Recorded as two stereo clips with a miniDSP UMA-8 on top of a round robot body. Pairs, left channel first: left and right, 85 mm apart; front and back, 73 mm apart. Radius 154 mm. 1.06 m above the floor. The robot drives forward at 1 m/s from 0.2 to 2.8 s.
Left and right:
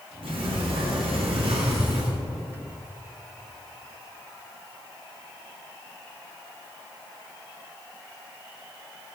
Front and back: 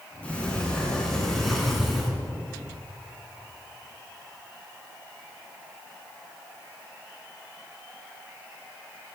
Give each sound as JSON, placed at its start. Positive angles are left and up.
{"t": 0.2, "sound": "a sliding door", "azimuth_deg": -75, "distance_m": 6.0}